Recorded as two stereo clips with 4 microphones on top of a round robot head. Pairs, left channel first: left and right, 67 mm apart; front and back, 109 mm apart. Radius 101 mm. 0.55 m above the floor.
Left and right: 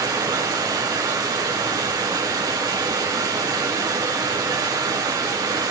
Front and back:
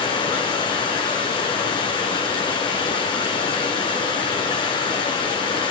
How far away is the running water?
About 2.5 m.